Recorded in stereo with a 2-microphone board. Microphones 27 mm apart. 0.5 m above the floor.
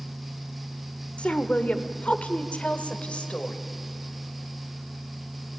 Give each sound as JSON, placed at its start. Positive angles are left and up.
{"t": 1.2, "sound": "a woman speaking", "side_deg": 50, "distance_m": 1.4}